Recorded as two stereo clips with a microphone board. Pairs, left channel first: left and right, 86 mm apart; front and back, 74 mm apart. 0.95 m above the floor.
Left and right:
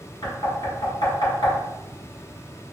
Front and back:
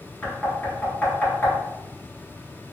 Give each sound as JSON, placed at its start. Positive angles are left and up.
{"t": 0.2, "sound": "knocking", "azimuth_deg": 65, "distance_m": 1.7}